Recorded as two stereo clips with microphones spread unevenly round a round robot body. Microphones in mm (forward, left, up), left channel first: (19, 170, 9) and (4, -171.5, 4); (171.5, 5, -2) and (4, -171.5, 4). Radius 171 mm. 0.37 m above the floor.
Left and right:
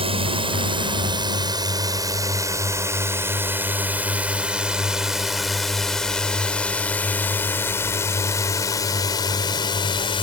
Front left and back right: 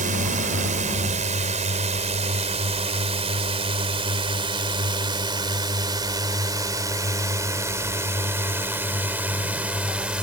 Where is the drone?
150° right; by 10.2 s 145° left.